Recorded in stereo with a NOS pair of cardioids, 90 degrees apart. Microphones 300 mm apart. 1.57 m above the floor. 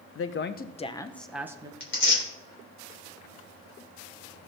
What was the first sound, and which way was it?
A woman speaking, 50° left.